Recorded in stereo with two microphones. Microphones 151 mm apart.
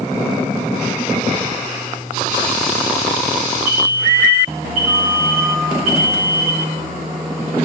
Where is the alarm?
55° right (ahead or behind), 6.5 m.